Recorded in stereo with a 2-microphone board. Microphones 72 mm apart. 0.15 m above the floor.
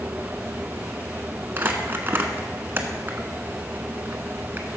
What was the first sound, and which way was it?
Crumpling, 30° right (ahead or behind).